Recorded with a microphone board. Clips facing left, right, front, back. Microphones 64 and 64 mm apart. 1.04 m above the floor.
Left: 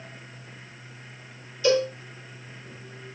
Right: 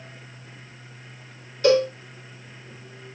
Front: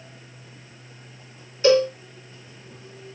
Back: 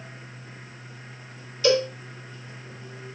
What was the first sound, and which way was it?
A cowbell, 55° right.